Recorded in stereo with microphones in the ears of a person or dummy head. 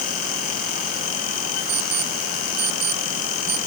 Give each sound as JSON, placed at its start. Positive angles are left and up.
{"t": 1.7, "sound": "an alarm clock", "side_deg": -60}